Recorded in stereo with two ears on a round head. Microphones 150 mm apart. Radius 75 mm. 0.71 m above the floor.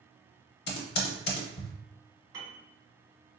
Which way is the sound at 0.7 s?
65° left (ahead or behind).